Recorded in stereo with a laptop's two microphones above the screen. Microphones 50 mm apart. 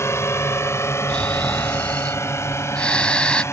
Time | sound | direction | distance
0.0 | a drone | 60° left (ahead or behind) | ?
1.1 | snoring | 20° left (ahead or behind) | ?